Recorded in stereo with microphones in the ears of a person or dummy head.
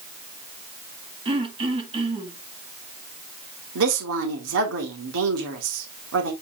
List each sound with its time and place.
1.2 s throat clearing: 25° right (ahead or behind), 1.7 m
3.8 s a woman speaking: 75° right (ahead or behind), 2 m